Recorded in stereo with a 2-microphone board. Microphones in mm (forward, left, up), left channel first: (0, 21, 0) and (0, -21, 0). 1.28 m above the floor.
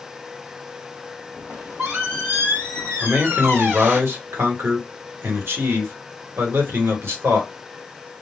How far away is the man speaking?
About 1.4 m.